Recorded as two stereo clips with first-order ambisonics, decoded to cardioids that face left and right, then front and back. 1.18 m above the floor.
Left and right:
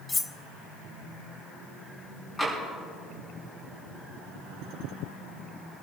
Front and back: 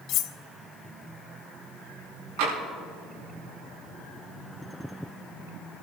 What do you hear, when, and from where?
0.1 s cutlery clinking: 15° left, 0.5 m
2.4 s tapping: 170° left, 7 m